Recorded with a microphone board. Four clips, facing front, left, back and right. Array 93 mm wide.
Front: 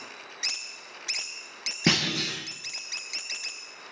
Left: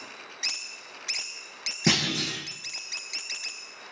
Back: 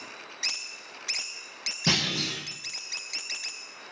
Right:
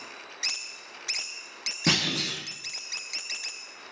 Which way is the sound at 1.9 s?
20° left.